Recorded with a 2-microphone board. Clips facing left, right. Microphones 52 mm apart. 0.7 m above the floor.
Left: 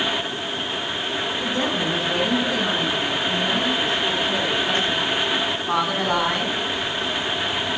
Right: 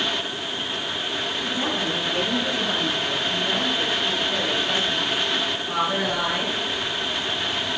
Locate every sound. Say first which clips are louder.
1.4 s a woman speaking: left 3 dB; 70° left (ahead or behind), 9.5 m; by 6.5 s 50° left (ahead or behind), 5.5 m